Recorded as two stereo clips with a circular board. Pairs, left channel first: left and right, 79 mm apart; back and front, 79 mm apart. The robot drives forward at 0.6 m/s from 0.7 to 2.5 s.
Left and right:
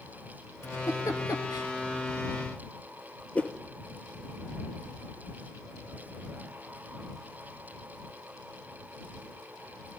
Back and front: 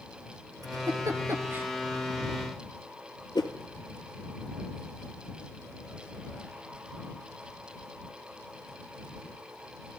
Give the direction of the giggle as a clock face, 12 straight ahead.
11 o'clock.